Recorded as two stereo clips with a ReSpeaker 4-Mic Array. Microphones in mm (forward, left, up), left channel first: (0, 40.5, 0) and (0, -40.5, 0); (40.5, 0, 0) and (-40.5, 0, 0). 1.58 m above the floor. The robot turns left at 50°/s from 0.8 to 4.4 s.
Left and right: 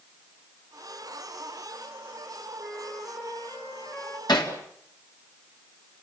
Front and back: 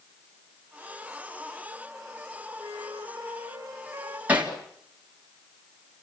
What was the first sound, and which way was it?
A flute, 170° right.